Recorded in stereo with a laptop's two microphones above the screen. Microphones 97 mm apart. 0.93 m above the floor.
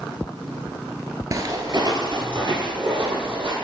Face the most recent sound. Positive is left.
turn(degrees=-60)  # may be behind; listen again after turning